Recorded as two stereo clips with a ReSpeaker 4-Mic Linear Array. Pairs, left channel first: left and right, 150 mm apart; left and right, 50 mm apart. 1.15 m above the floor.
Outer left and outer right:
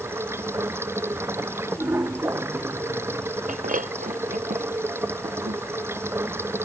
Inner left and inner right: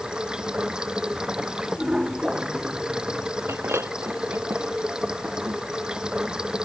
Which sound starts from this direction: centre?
Running water, at 0.0 s.